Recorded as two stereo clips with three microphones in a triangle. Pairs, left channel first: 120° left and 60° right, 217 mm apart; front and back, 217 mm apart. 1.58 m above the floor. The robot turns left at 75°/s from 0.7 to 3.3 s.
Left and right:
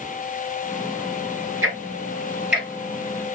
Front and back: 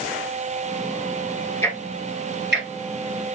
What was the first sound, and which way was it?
Ticking, 80° right.